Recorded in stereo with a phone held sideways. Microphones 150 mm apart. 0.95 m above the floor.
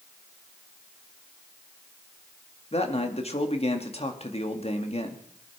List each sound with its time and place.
2.7 s a man speaking: 45° left (ahead or behind), 2 m